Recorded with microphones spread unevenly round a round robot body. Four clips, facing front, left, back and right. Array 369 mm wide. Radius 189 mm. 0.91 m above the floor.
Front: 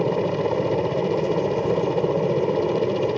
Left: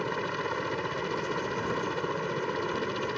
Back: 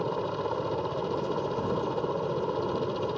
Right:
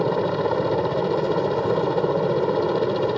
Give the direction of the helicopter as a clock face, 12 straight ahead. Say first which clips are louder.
Right 10 dB, front 8 dB; 1 o'clock.